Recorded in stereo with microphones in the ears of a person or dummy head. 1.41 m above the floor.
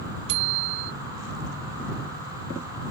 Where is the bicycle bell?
65° right (ahead or behind).